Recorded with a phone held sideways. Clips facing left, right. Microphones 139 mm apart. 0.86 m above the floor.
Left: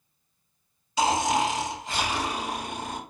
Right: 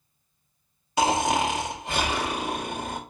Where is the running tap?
I don't hear a running tap.